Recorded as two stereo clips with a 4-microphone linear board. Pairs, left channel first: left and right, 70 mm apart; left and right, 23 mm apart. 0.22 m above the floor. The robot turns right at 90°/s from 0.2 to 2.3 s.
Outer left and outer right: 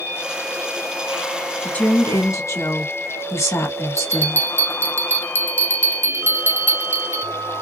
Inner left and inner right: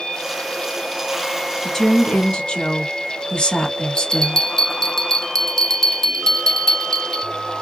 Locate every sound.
1.6 s a woman speaking: 20° left, 1.7 m; by 4.5 s 80° left, 1.7 m
4.0 s a bell: 30° left (ahead or behind), 0.6 m